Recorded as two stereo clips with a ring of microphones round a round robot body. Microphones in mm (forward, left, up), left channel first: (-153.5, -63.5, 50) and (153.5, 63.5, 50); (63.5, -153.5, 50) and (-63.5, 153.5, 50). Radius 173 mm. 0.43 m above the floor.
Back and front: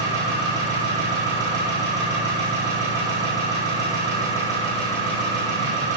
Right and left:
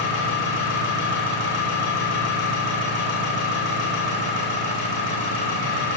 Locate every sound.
0.0 s an engine running: 80° right, 7 m